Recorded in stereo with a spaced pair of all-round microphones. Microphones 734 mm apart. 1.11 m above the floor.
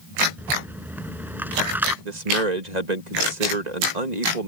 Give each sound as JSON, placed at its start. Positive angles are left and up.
{"t": 0.4, "sound": "a rattle", "side_deg": 0}
{"t": 2.0, "sound": "a man speaking", "side_deg": -70}